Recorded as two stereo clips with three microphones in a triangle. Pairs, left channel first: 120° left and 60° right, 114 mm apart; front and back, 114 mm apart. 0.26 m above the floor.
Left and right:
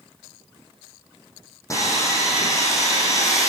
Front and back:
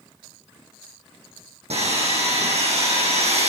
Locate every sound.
1.7 s sawing: straight behind, 8 m